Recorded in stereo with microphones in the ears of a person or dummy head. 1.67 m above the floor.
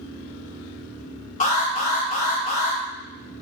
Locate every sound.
1.4 s an alarm: 35° left (ahead or behind), 0.6 m